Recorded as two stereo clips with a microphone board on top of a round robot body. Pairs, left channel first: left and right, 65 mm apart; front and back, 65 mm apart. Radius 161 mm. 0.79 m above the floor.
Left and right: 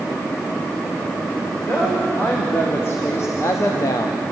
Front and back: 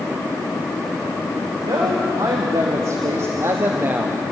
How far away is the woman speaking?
About 3 m.